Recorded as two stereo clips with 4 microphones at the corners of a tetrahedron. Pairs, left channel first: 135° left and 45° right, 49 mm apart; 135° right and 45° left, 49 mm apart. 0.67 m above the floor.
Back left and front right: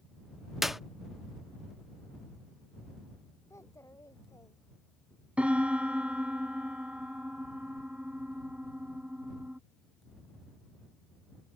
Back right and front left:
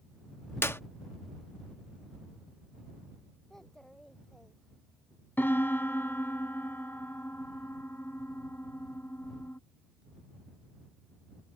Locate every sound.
0.6 s a clap: 130° right
3.5 s a child speaking: 140° left
5.4 s a piano: 105° right